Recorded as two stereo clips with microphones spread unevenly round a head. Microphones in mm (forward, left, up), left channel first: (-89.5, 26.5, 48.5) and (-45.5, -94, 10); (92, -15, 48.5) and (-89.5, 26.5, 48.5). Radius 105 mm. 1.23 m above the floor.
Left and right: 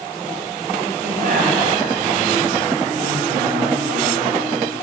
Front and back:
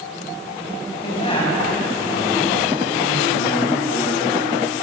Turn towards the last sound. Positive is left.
turn(degrees=-75)